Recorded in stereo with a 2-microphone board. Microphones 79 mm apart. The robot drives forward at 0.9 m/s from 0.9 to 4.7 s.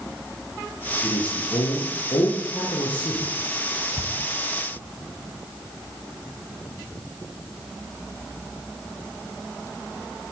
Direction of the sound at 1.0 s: 85° left.